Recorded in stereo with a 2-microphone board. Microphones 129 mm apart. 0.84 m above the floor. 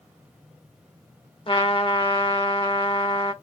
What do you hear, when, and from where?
1.5 s a trumpet: 45° left (ahead or behind), 1.0 m